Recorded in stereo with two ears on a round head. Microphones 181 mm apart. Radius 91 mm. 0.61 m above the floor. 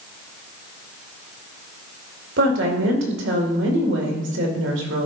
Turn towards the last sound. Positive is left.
turn(degrees=-65)  # may be behind; listen again after turning